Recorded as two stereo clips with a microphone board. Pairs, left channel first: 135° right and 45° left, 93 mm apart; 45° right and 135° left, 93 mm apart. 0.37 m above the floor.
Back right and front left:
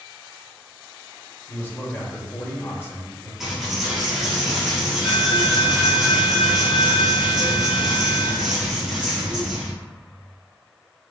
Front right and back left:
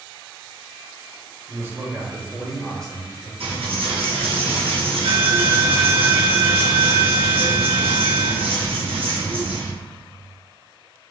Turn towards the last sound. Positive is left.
turn(degrees=130)